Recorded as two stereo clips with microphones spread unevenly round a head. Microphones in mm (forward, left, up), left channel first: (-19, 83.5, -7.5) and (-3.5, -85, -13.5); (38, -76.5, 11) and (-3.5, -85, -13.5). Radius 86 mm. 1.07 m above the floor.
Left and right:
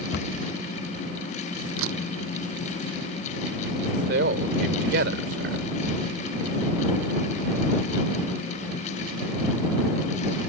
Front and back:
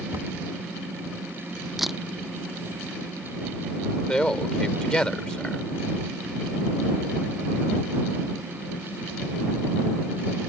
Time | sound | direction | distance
0.1 | a cupboard door | 120° left | ?
1.8 | a camera shutter | 80° right | ?
4.1 | a man speaking | 50° right | ?